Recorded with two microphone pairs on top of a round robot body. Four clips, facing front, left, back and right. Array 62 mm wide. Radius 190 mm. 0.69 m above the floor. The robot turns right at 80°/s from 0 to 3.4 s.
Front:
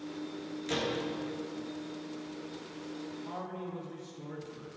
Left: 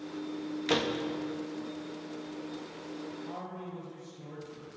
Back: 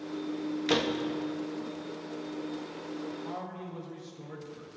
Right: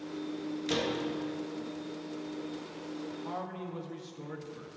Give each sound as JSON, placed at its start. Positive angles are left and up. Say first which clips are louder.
{"t": 0.7, "sound": "a door slam", "louder": "left 3 dB, back 5 dB", "azimuth_deg": 130, "distance_m": 0.9}
{"t": 3.2, "sound": "a man speaking", "louder": "right 2 dB, back 1 dB", "azimuth_deg": -105, "distance_m": 1.8}